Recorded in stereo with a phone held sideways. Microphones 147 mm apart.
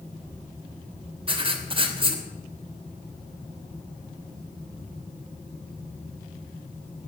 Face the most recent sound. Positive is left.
turn(degrees=-35)  # may be behind; listen again after turning